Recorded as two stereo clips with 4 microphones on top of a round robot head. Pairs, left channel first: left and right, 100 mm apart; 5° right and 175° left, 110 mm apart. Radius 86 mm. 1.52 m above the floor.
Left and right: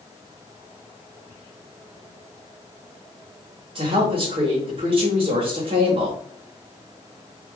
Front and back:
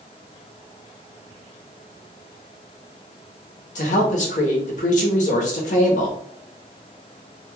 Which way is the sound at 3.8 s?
35° right.